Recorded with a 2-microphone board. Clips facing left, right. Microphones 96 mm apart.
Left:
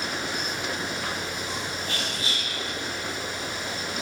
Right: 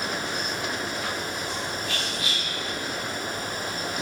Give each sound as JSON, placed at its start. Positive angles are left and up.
{"t": 1.9, "sound": "whispering", "side_deg": 35, "distance_m": 1.2}